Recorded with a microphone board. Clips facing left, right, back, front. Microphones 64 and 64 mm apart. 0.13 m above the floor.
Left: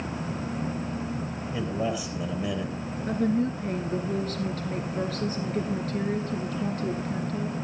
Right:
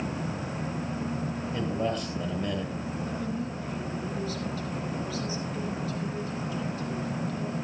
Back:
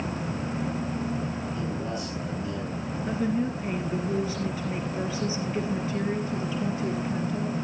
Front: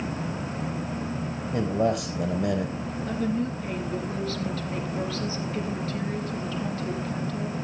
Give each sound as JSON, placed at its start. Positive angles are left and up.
{"t": 1.5, "sound": "a man speaking", "azimuth_deg": 5, "distance_m": 2.5}
{"t": 3.1, "sound": "a woman speaking", "azimuth_deg": 110, "distance_m": 1.8}